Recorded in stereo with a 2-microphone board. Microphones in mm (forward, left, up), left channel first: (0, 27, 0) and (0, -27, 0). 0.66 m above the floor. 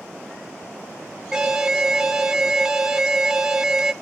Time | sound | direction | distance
1.3 | an alarm | 10° right (ahead or behind) | 1.1 m